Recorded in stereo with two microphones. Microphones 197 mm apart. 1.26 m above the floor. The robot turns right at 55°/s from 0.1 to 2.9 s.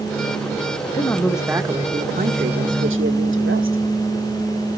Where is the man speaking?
160° left, 1.5 m; by 3.8 s 95° right, 1.5 m.